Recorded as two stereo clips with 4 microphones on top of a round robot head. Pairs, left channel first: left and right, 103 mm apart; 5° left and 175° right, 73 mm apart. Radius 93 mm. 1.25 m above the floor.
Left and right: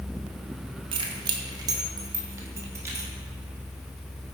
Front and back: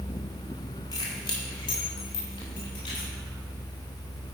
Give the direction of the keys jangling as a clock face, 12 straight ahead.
2 o'clock.